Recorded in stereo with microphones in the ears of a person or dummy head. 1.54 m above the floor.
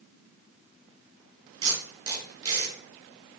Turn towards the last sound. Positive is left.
turn(degrees=-25)  # may be behind; listen again after turning